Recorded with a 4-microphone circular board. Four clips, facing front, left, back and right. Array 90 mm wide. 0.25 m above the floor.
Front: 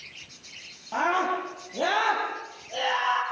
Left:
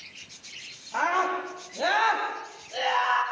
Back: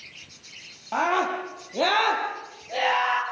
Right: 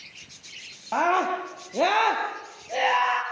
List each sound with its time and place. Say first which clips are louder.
0.9 s a scream: right 3 dB, back 1 dB; 110° right, 9 m; by 3.2 s 115° right, 6.5 m